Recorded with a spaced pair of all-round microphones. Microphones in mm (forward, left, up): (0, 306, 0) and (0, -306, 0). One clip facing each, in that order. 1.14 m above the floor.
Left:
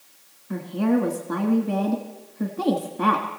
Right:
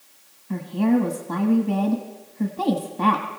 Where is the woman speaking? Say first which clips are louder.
Right 2 dB; 25° right (ahead or behind), 1.4 m.